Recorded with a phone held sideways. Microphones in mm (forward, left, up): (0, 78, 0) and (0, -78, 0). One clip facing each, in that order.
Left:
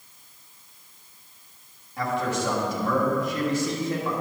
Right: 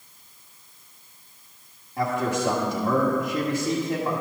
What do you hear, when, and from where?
2.0 s a man speaking: 20° right (ahead or behind), 1.6 m